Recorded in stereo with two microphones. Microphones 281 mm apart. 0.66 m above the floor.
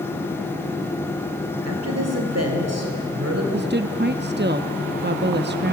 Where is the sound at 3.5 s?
35° right (ahead or behind), 0.7 m.